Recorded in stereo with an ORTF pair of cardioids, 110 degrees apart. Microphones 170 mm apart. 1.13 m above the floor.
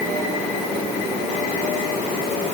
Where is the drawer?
No drawer in this recording.